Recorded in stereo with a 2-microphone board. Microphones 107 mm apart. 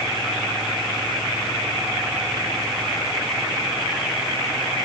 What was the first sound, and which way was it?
Only background noise.